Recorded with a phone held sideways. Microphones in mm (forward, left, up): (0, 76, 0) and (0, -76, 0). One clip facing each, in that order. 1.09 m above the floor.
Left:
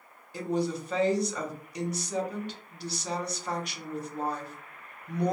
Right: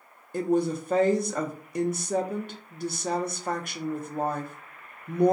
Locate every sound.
0.3 s a woman speaking: 50° right (ahead or behind), 0.5 m